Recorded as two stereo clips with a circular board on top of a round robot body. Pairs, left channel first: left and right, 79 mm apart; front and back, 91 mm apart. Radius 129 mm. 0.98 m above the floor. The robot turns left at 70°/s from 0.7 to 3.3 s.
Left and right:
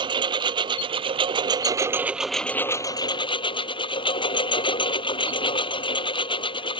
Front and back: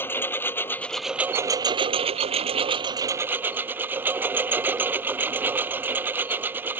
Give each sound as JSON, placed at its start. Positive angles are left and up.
{"t": 0.0, "sound": "a lawn mower", "azimuth_deg": -70}